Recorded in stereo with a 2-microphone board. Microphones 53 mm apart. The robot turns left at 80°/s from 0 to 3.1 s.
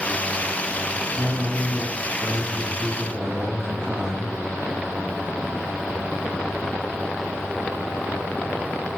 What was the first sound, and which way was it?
A man speaking, 5° right (ahead or behind).